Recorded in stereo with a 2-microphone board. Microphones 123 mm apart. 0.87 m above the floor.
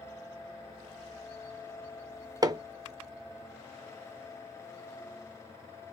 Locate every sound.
2.4 s hammering: 30° right (ahead or behind), 0.5 m